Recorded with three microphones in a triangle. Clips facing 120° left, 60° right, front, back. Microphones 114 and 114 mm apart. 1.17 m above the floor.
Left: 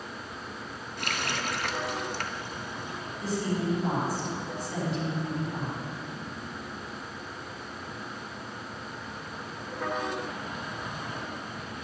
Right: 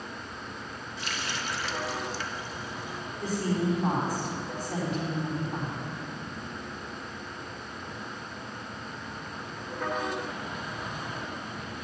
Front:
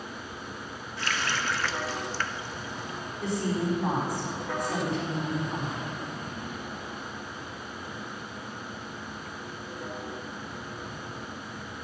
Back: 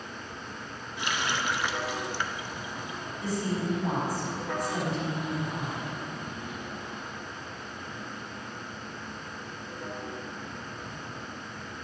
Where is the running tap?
110° left, 0.6 m.